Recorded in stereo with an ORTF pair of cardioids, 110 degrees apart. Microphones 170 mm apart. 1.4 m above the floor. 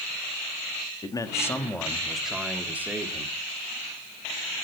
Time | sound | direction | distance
1.0 | a man speaking | 25° left | 2 m